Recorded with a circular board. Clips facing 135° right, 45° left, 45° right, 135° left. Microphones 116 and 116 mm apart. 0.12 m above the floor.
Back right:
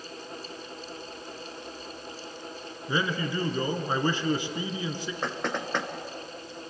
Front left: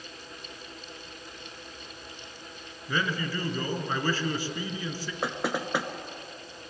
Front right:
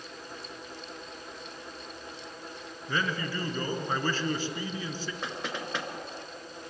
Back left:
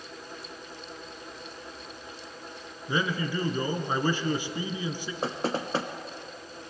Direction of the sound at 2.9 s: 175° right.